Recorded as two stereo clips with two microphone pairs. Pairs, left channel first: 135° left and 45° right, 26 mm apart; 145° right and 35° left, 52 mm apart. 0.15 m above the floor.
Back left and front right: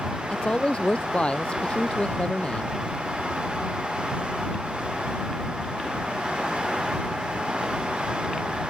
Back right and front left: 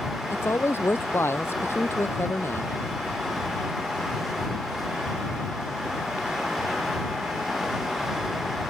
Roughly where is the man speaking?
Behind.